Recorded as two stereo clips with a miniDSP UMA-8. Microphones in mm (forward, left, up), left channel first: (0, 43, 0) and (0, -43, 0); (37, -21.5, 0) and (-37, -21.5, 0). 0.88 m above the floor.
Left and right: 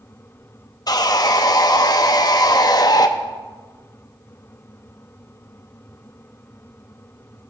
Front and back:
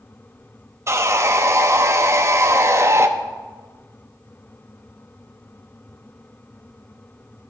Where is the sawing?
130° left, 0.6 m.